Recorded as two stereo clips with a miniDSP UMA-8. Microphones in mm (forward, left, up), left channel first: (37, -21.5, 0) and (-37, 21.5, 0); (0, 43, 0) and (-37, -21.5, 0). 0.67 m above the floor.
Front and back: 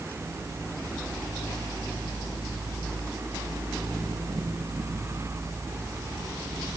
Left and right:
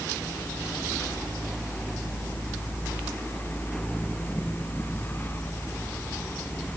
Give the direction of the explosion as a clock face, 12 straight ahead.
I don't hear an explosion.